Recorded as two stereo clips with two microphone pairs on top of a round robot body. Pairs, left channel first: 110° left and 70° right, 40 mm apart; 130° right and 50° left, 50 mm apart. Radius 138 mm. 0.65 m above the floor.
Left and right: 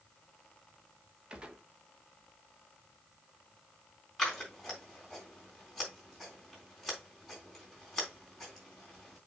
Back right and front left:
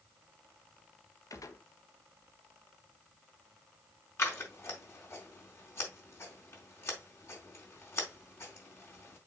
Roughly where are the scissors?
Behind.